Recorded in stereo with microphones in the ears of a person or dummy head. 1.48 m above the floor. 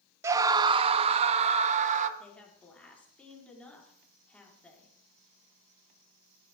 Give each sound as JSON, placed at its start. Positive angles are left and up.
{"t": 0.2, "sound": "a scream", "side_deg": -15, "distance_m": 0.7}
{"t": 2.2, "sound": "a woman speaking", "side_deg": 10, "distance_m": 4.5}